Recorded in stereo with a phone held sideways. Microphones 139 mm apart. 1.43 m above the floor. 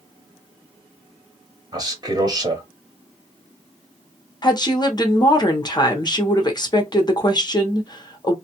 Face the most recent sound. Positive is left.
turn(degrees=30)  # may be behind; listen again after turning